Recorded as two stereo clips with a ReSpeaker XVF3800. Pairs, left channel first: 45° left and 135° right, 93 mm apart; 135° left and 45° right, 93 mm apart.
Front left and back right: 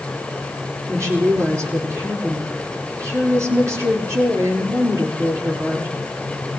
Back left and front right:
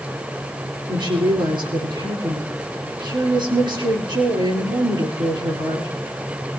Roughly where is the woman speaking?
Right.